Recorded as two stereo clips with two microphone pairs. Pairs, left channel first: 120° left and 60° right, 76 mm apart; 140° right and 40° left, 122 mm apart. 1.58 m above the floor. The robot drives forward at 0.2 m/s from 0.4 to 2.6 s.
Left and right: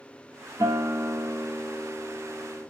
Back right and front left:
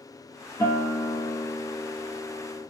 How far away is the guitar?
About 1.2 m.